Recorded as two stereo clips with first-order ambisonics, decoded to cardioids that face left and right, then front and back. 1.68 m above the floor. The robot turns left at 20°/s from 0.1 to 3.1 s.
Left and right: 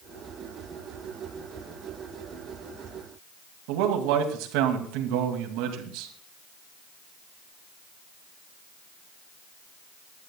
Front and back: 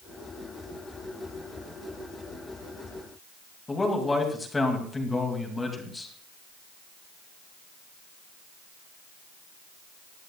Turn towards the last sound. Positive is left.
turn(degrees=-80)